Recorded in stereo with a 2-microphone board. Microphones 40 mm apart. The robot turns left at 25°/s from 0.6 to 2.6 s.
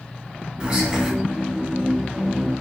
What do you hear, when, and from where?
0.6 s whispering: 15° right (ahead or behind), 1.8 m; by 1.1 s 5° right (ahead or behind), 1.8 m